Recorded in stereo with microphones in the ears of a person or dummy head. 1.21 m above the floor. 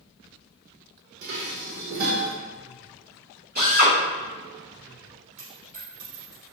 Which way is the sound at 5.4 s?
40° right (ahead or behind).